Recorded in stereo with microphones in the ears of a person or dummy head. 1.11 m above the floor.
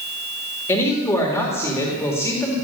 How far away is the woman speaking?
About 2 m.